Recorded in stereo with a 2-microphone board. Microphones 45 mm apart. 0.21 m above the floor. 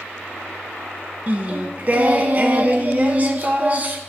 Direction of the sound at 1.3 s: 40° right (ahead or behind).